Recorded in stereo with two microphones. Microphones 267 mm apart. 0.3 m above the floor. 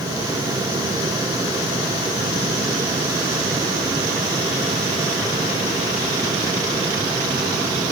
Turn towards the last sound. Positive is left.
No sound to turn to.